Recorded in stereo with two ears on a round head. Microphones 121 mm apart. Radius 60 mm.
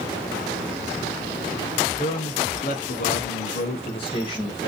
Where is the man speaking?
40° left (ahead or behind), 1.3 m; by 4.7 s 30° left (ahead or behind), 1.5 m.